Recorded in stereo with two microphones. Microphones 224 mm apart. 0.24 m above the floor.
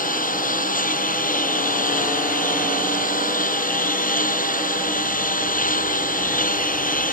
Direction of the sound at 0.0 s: 35° left (ahead or behind).